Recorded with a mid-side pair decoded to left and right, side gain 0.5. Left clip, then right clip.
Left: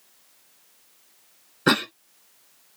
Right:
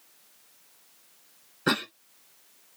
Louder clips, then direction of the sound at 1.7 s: Left 6 dB; 35° left.